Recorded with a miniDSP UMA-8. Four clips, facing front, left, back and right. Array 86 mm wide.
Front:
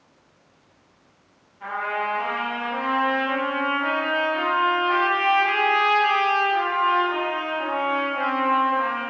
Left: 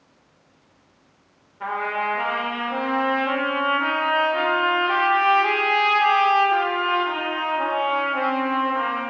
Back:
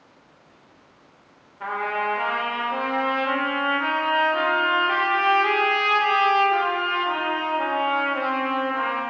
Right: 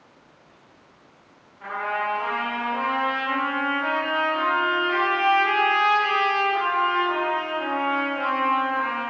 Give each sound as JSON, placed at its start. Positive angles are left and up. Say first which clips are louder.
{"t": 1.6, "sound": "a trumpet", "louder": "left 2 dB, back 1 dB", "azimuth_deg": 135, "distance_m": 3.0}